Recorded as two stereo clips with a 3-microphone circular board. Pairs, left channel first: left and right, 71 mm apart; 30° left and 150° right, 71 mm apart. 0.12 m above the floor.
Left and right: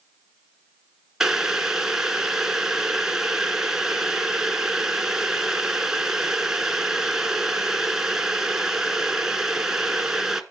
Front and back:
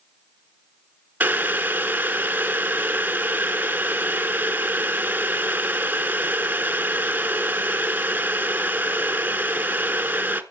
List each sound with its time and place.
1.2 s boiling: 165° right, 0.9 m